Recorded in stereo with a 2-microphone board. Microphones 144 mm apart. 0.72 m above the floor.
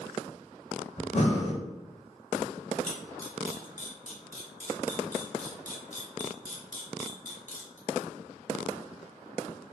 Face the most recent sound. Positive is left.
turn(degrees=60)  # may be behind; listen again after turning